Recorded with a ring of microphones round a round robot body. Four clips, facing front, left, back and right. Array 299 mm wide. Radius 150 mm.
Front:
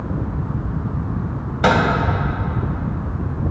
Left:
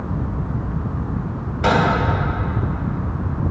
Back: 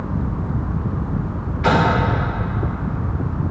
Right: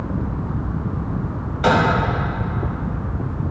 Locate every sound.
1.6 s a microwave: 5° right, 2.5 m